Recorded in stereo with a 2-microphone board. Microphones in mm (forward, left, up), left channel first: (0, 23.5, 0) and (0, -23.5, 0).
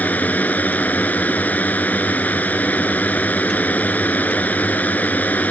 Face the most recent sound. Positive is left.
turn(degrees=35)  # may be behind; listen again after turning